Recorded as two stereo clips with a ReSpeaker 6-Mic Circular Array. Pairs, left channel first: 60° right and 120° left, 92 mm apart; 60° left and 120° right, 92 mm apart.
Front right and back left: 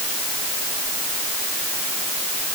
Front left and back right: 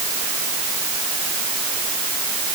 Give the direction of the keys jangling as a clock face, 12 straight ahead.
I don't hear keys jangling.